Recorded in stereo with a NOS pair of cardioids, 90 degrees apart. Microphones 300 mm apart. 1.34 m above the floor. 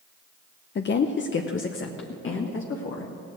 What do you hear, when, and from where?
0.8 s a woman speaking: 35° left, 0.7 m; by 3.1 s 45° left, 2 m